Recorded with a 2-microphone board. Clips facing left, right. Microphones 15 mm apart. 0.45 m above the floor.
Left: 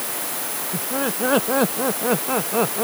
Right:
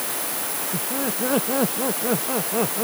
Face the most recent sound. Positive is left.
turn(degrees=35)  # may be behind; listen again after turning